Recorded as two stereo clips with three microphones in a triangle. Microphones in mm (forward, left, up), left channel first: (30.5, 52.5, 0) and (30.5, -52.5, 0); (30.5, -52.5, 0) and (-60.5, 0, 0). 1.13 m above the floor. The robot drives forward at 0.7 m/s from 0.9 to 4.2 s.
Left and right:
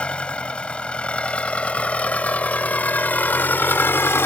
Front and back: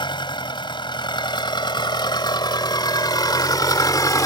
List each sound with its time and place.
0.0 s an engine running: 10° left; by 4.3 s 25° left